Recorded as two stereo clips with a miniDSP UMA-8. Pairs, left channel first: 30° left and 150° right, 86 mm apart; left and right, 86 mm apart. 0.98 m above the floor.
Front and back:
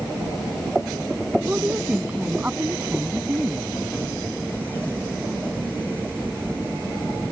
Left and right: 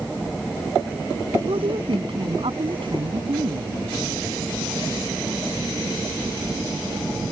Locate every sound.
1.5 s a woman speaking: 80° right